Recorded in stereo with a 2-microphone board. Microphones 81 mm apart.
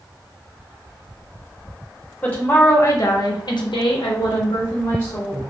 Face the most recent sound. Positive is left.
turn(degrees=40)  # may be behind; listen again after turning